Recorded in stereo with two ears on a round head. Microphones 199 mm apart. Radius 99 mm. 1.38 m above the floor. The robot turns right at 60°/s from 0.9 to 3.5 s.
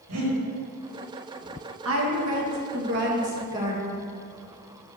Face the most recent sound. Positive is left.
turn(degrees=-20)